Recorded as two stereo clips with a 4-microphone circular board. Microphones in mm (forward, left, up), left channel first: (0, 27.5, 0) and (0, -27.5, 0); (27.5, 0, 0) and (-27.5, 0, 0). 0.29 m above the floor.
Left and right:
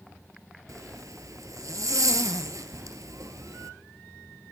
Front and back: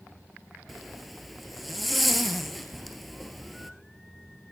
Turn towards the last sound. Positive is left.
turn(degrees=-135)